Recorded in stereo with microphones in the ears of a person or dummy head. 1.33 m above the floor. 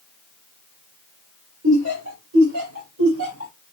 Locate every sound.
1.6 s laughter: 85° right, 2 m; by 3.5 s 80° right, 4 m